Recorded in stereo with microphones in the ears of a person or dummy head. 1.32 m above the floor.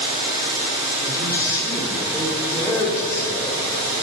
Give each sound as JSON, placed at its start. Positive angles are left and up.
{"t": 1.0, "sound": "a man speaking", "side_deg": 15, "distance_m": 3.0}